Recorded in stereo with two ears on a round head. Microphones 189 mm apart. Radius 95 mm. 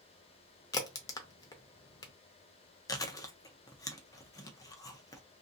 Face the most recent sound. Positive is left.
turn(degrees=15)  # may be behind; listen again after turning